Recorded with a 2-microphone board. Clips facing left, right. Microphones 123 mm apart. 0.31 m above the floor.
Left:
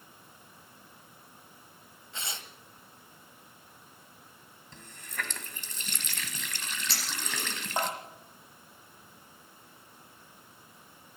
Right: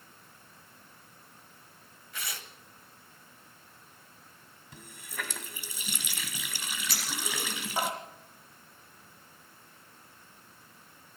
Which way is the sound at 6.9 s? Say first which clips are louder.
Right 3 dB; 30° left (ahead or behind).